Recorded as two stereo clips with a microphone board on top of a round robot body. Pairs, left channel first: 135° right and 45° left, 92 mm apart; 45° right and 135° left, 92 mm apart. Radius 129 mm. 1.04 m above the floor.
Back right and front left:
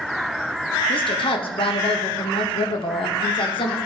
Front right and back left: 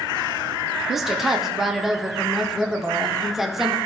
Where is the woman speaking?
135° right, 1.8 m.